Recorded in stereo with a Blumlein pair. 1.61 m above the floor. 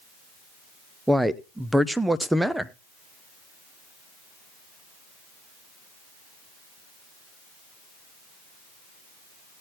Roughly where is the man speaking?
Ahead.